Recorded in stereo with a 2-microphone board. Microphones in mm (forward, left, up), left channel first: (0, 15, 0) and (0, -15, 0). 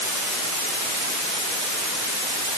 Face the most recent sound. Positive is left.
No sound to turn to.